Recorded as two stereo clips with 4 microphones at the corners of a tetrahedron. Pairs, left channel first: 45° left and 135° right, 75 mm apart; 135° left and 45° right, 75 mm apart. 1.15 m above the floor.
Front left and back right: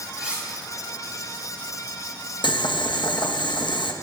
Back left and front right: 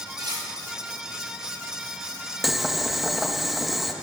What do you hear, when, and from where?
0.1 s cutlery clinking: 60° right, 6.5 m
2.4 s boiling: 40° left, 1.0 m